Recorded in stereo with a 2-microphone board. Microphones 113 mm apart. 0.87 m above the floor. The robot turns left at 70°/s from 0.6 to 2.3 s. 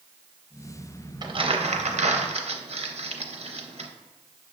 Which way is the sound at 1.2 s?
40° right (ahead or behind).